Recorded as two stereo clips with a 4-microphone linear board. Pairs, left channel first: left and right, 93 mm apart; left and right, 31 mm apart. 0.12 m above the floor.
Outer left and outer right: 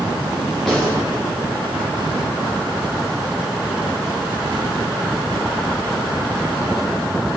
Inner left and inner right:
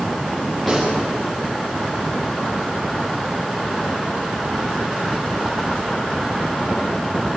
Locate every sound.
0.7 s a gunshot: centre (ahead or behind), 7 m